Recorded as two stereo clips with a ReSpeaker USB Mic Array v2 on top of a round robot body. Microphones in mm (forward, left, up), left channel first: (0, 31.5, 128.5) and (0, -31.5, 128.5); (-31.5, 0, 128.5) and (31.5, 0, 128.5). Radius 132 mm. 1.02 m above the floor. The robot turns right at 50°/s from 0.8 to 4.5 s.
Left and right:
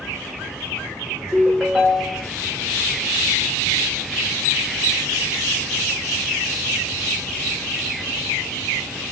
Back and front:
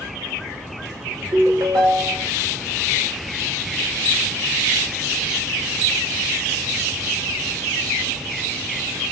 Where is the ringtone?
15° right, 1.3 m; by 2.3 s 35° left, 1.3 m.